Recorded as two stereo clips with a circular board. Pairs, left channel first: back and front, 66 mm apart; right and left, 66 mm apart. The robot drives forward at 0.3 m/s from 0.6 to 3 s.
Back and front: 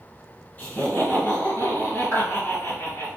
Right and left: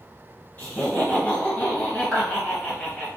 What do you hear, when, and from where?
0.6 s laughter: 140° right, 1.6 m; by 3.1 s 155° right, 2 m
2.1 s a clap: straight behind, 1.6 m